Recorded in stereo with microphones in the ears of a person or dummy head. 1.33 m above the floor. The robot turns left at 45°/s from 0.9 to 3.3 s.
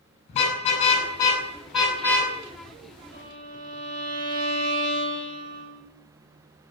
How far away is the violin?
About 7 m.